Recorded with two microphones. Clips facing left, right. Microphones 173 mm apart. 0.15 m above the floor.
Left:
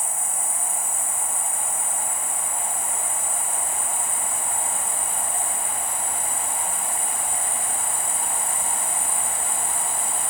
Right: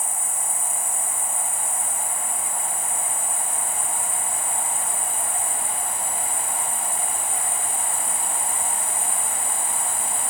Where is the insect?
70° left (ahead or behind), 1.5 m.